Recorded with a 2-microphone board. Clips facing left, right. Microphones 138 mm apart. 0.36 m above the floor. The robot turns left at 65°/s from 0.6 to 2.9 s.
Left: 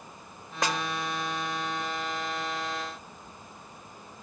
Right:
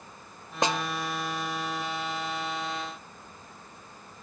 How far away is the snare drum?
About 1.1 m.